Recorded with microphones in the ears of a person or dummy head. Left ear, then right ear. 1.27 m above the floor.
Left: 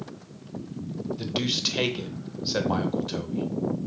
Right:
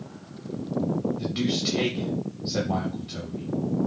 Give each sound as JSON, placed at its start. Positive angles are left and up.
{"t": 1.2, "sound": "a man speaking", "side_deg": 45, "distance_m": 0.7}